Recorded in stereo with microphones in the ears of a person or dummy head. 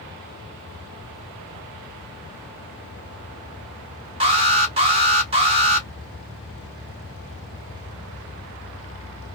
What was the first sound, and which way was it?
An alarm, 25° right (ahead or behind).